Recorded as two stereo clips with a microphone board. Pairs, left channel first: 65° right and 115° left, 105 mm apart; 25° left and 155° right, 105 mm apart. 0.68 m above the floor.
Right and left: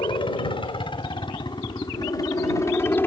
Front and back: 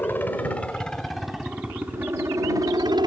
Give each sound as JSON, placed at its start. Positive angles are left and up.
{"t": 0.0, "sound": "a helicopter", "azimuth_deg": -45}